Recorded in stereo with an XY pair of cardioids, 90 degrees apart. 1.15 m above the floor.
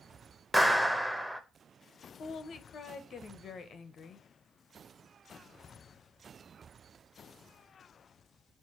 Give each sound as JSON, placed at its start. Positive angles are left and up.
{"t": 0.5, "sound": "a clap", "azimuth_deg": -5, "distance_m": 0.6}
{"t": 2.2, "sound": "a woman speaking", "azimuth_deg": 60, "distance_m": 0.7}